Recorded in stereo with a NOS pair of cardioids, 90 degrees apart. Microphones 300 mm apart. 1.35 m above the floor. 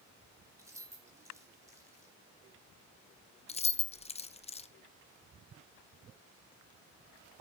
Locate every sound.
0.6 s keys jangling: 10° right, 3.5 m
3.5 s keys jangling: 20° left, 0.8 m